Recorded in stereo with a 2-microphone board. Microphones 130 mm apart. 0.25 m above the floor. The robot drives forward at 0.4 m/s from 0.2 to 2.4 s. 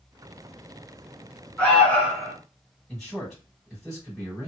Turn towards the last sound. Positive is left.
turn(degrees=5)  # may be behind; listen again after turning